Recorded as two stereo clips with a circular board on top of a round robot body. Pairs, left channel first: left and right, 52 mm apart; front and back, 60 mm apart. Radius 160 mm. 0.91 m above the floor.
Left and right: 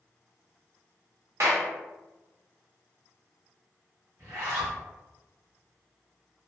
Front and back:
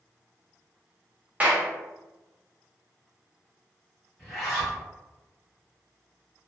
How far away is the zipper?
About 1.1 m.